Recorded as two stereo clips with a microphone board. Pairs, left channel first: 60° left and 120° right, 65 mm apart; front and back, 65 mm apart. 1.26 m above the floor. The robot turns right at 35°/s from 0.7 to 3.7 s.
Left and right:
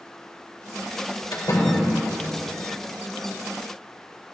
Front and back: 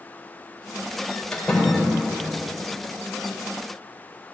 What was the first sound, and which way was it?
A door slam, 70° left.